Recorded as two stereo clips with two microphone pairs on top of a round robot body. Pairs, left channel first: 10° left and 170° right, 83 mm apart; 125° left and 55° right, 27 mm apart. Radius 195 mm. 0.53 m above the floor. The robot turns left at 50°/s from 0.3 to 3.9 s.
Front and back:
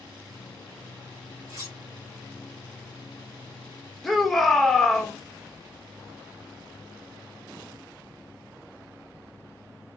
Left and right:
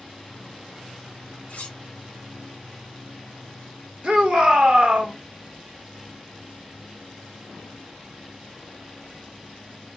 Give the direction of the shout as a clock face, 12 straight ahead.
2 o'clock.